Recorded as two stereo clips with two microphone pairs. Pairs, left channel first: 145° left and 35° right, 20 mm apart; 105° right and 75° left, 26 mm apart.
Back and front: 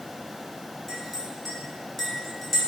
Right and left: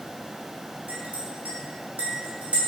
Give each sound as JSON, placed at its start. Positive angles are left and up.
{"t": 0.9, "sound": "a clink", "azimuth_deg": 70, "distance_m": 1.1}